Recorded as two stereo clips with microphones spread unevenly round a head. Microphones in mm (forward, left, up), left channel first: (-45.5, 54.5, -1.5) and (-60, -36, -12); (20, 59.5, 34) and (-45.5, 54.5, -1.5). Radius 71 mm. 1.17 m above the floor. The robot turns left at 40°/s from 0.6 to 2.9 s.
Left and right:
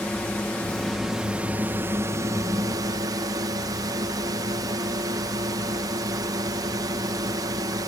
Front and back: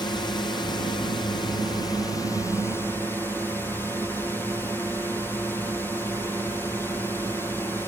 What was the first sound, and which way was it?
A drone, 5° left.